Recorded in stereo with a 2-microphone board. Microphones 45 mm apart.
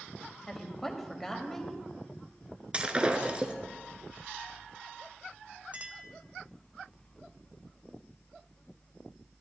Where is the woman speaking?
5° left (ahead or behind), 1.7 m.